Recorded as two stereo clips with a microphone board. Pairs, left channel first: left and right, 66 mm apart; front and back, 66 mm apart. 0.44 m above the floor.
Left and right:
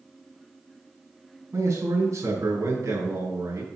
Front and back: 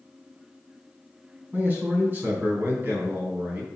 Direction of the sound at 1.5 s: 120° right.